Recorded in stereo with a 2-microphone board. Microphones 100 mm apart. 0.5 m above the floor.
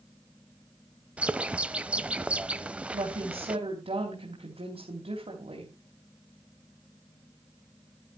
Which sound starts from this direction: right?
A woman speaking, at 2.9 s.